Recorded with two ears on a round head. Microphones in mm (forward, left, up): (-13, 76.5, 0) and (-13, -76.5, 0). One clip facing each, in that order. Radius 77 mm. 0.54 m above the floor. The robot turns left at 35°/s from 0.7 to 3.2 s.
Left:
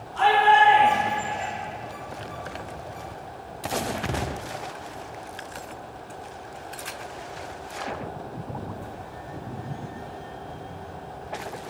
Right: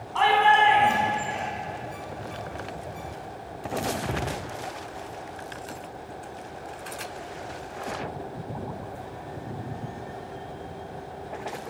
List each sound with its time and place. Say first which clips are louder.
0.1 s a shout: left 2 dB; 80° right, 4.5 m; by 1.5 s 65° right (ahead or behind), 4.5 m